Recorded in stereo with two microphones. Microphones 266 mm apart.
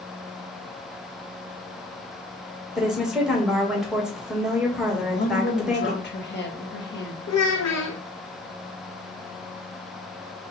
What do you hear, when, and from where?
2.8 s a woman speaking: centre (ahead or behind), 1.5 m
4.9 s a woman speaking: 40° left (ahead or behind), 1.3 m
7.3 s a child speaking: 70° left (ahead or behind), 0.5 m